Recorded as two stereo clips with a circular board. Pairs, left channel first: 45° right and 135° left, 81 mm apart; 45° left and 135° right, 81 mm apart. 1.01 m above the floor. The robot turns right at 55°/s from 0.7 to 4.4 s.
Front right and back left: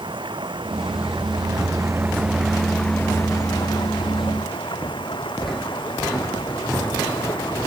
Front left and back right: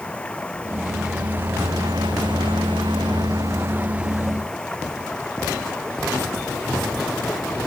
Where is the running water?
120° left; by 7.7 s 35° right.